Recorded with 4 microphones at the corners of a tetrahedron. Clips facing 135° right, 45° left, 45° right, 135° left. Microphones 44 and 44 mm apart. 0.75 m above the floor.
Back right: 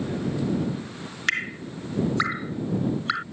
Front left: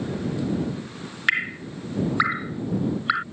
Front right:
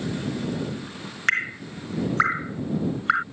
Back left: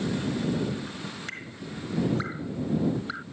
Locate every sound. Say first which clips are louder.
1.3 s dripping: front left 3 dB, front right 13 dB; 35° right